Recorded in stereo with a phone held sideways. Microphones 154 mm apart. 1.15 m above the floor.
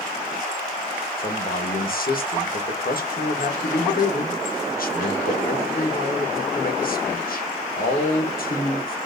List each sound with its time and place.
1.2 s a man speaking: 70° left (ahead or behind), 1.1 m